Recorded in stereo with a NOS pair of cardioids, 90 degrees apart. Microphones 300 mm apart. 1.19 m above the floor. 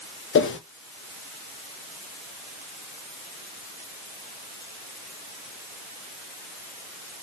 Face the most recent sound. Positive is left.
turn(degrees=45)